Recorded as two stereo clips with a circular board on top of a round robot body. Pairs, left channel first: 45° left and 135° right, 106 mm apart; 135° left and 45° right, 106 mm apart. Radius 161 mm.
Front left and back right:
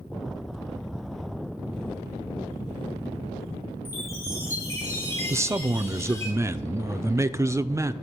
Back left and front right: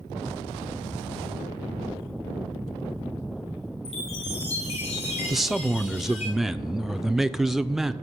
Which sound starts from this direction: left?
A chime, at 3.9 s.